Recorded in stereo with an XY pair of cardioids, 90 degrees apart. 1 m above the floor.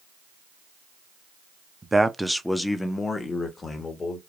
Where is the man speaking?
20° right, 0.6 m; by 4.2 s 50° left, 1.3 m.